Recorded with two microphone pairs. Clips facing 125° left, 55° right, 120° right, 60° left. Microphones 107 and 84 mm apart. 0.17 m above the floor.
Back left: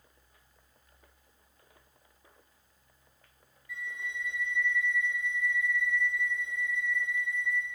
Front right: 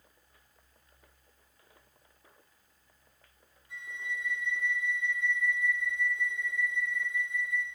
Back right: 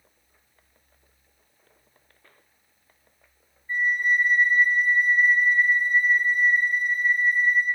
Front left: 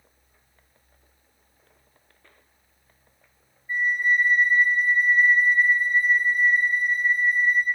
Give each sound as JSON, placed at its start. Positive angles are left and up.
{"t": 3.7, "sound": "a flute", "azimuth_deg": -15, "distance_m": 1.3}